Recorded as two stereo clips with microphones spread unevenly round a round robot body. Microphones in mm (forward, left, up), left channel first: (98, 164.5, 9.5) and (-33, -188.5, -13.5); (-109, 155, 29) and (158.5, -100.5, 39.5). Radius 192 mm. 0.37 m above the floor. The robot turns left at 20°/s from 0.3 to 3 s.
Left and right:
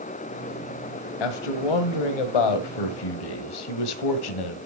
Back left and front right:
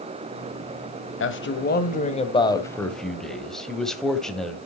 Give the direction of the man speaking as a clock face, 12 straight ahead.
9 o'clock.